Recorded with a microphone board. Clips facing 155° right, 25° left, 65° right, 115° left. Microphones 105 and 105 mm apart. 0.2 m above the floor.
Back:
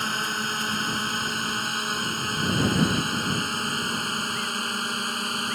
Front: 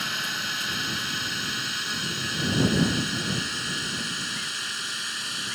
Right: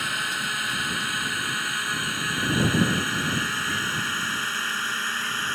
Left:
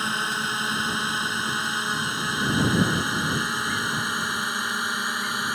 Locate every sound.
0.0 s a drone: 170° left; by 5.5 s 175° right